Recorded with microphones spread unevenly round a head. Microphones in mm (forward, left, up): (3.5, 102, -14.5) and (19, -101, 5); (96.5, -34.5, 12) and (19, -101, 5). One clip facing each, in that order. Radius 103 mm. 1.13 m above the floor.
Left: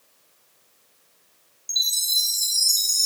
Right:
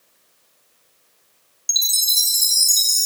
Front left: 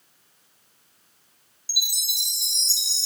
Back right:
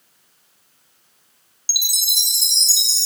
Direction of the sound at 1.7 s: 140° right.